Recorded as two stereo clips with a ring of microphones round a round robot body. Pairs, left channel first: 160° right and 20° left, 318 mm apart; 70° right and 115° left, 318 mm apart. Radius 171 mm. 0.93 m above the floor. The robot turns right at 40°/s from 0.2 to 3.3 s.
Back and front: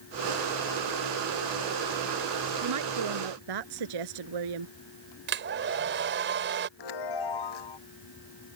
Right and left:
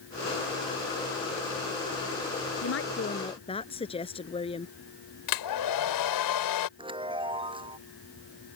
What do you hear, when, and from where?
2.6 s a woman speaking: 20° right; by 4.8 s 5° left
5.3 s a hair dryer: 35° right
6.8 s a chime: 170° right